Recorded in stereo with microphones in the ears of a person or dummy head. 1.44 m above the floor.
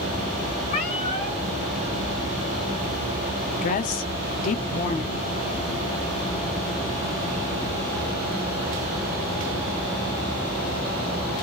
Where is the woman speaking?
40° left (ahead or behind), 0.6 m.